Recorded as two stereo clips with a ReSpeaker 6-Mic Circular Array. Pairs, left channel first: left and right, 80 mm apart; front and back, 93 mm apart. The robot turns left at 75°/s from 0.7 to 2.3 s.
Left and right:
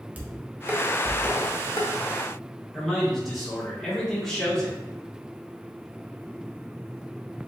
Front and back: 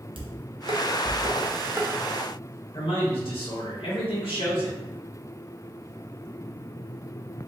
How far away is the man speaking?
About 1.8 m.